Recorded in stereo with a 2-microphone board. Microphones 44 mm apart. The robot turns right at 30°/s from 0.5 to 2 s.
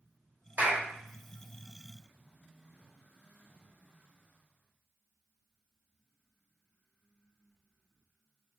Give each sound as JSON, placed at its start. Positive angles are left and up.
{"t": 0.6, "sound": "a clap", "side_deg": -35, "distance_m": 1.3}